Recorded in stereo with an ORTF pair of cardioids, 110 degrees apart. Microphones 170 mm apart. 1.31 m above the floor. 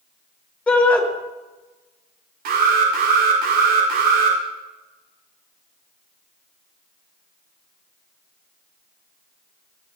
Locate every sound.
0.7 s a shout: 10° left, 6 m
2.5 s an alarm: 70° right, 6 m